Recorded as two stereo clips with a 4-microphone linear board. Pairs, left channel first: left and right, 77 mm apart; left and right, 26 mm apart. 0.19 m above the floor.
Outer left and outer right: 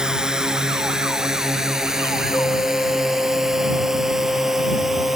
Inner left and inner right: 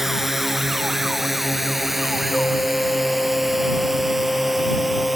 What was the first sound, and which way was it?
A drone, 10° right (ahead or behind).